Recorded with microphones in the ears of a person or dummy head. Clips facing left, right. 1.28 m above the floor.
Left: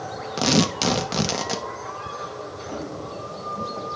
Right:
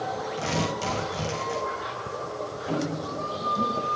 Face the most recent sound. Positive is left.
turn(degrees=-30)  # may be behind; listen again after turning